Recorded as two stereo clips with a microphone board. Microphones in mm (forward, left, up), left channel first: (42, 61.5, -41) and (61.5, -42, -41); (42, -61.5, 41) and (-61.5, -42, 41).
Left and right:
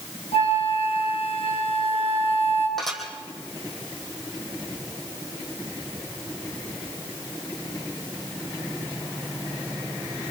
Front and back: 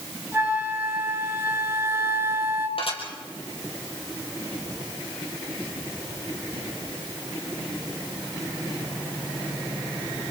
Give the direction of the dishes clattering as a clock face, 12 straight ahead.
12 o'clock.